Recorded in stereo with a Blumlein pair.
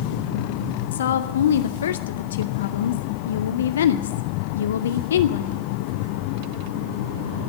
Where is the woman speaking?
65° left, 0.8 m.